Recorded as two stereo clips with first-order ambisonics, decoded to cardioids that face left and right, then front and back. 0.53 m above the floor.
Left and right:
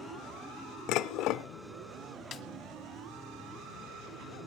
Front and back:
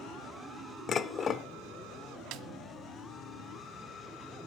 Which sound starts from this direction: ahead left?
Dishes clattering, at 0.9 s.